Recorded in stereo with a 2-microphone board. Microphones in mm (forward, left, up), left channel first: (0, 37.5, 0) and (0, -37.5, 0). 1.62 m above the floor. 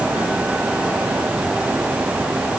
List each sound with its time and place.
Only background noise.